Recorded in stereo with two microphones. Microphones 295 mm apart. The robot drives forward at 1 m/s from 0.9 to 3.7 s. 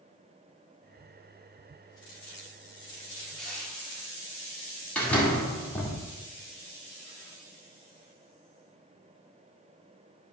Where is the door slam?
5° left (ahead or behind), 1.8 m.